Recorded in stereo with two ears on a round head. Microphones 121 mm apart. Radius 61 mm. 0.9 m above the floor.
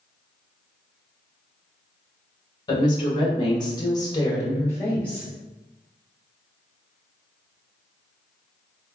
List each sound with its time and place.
2.7 s a woman speaking: 35° left (ahead or behind), 1.3 m; by 5.3 s 10° left (ahead or behind), 0.8 m